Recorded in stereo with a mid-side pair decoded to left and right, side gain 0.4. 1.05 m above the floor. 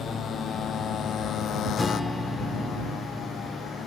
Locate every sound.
0.0 s a motorcycle: 70° left; by 3.9 s 75° left
1.8 s a guitar: 20° left